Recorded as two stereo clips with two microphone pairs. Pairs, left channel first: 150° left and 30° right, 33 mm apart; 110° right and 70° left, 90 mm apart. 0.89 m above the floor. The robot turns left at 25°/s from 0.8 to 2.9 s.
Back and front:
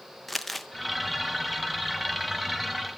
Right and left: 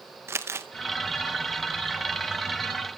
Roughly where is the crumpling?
Ahead left.